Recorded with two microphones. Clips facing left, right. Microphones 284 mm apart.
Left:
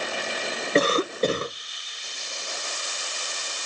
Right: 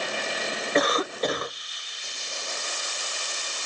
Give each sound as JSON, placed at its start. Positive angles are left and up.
{"t": 0.8, "sound": "a cough", "side_deg": 30, "distance_m": 0.5}